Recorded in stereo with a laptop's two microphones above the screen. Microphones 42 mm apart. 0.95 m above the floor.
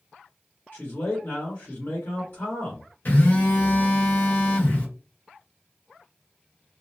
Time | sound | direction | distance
0.7 | a man speaking | 55° left (ahead or behind) | 1.2 m
3.0 | a phone buzzing | 55° left (ahead or behind) | 1.3 m